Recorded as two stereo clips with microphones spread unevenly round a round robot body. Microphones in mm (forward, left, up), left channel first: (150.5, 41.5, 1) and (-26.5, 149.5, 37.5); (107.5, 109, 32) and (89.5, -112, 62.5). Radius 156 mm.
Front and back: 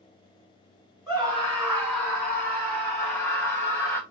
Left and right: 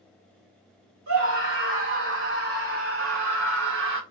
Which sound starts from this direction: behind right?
A scream, at 1.1 s.